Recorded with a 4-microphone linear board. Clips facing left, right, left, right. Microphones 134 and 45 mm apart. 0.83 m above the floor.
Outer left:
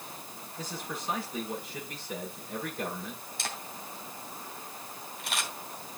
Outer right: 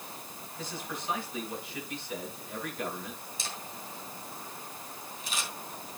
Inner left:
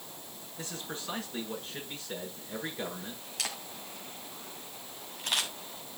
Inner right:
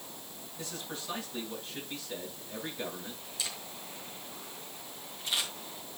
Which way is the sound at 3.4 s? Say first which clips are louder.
Outer left 4 dB, inner left 3 dB; 70° left (ahead or behind).